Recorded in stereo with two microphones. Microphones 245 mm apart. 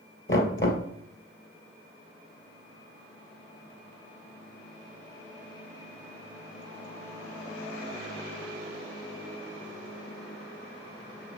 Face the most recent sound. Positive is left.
turn(degrees=55)  # may be behind; listen again after turning